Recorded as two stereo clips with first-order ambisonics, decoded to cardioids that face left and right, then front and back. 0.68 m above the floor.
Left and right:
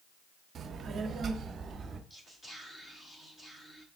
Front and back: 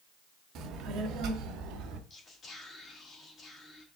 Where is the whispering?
25° left, 1.2 m.